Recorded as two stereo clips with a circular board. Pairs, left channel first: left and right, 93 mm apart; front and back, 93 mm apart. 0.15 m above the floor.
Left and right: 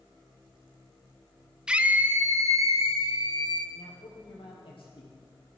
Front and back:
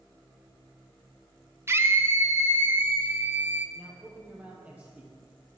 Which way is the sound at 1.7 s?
160° right.